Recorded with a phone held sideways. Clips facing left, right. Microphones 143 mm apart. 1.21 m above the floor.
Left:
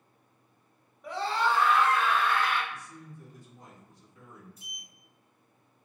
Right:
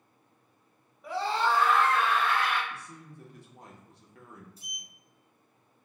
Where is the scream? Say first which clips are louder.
Right 1 dB; centre (ahead or behind), 1.0 m; by 2.6 s 75° right (ahead or behind), 1.8 m.